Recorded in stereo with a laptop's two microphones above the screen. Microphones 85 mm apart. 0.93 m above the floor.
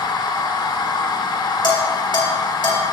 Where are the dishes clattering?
75° left (ahead or behind), 3 m.